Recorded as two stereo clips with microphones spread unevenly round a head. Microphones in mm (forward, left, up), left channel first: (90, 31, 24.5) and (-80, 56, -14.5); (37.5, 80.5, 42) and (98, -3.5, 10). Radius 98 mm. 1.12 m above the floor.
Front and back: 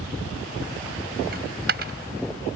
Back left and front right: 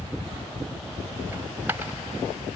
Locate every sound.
1.3 s a dropped coin: 140° right